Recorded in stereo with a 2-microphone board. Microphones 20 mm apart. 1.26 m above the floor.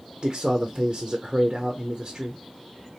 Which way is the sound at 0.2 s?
30° right (ahead or behind).